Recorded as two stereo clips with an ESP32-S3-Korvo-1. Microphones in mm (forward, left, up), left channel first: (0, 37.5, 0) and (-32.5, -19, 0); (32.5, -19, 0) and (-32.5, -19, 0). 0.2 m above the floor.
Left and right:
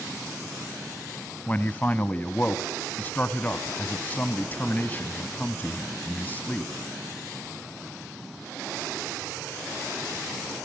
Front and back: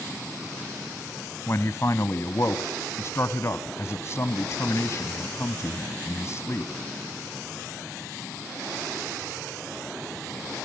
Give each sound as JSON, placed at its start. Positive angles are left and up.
{"t": 1.5, "sound": "a man speaking", "azimuth_deg": 10, "distance_m": 1.3}